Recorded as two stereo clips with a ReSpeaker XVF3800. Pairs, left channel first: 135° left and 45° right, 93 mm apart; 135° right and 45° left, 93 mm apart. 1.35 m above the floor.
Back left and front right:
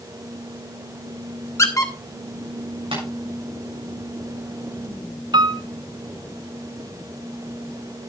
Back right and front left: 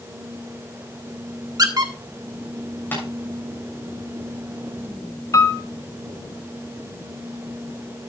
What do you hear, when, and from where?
1.6 s a squeak: 85° left, 1.4 m
2.9 s tapping: 65° right, 7 m
5.3 s a piano: 80° right, 0.7 m